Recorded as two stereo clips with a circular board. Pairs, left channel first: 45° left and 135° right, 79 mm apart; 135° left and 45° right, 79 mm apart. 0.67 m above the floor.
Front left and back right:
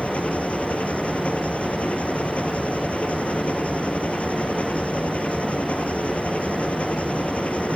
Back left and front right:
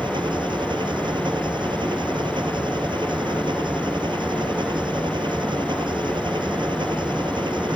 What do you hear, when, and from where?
0.0 s an engine running: 30° right